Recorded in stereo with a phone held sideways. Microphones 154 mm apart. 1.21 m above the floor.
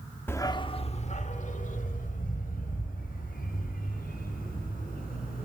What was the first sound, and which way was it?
A dog barking, 15° left (ahead or behind).